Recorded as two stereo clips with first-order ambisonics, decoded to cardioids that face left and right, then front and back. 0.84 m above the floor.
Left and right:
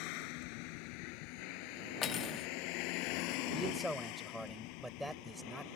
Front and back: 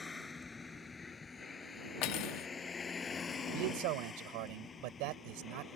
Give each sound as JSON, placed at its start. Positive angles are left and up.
{"t": 0.0, "sound": "a vehicle", "azimuth_deg": 75}
{"t": 2.0, "sound": "cutlery clinking", "azimuth_deg": 30}
{"t": 3.5, "sound": "a man speaking", "azimuth_deg": -175}